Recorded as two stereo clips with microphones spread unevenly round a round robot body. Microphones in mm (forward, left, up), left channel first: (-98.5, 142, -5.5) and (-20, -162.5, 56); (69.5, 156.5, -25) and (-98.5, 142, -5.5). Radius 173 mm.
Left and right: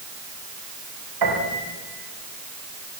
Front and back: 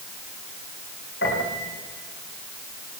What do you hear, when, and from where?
1.2 s a piano: 45° right, 9 m